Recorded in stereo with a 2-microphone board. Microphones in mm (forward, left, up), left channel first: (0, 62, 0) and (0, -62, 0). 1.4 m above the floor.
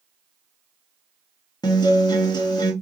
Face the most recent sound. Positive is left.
turn(degrees=35)  # may be behind; listen again after turning